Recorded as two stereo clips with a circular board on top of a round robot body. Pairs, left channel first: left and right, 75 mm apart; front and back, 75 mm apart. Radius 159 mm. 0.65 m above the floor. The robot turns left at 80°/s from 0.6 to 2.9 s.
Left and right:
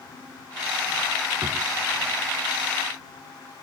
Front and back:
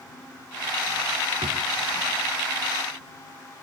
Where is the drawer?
155° right; by 1.7 s straight behind.